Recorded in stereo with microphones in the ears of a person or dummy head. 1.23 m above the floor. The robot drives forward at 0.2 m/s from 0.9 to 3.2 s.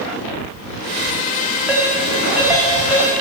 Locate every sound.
1.7 s a ringtone: 5° right (ahead or behind), 1.2 m